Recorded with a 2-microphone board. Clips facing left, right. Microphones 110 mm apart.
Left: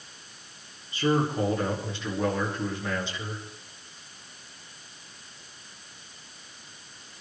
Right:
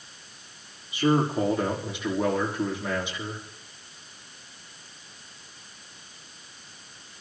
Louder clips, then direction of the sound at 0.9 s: Right 2 dB; 15° right (ahead or behind).